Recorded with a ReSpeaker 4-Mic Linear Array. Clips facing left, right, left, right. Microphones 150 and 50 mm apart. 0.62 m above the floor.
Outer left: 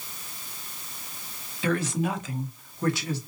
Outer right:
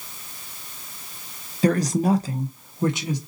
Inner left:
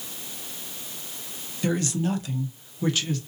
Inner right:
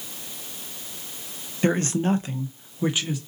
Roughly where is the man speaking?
Right.